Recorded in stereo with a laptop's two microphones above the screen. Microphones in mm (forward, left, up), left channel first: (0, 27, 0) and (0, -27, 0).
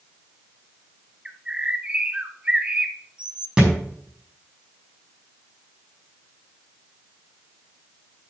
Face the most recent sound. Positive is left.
turn(degrees=-15)  # may be behind; listen again after turning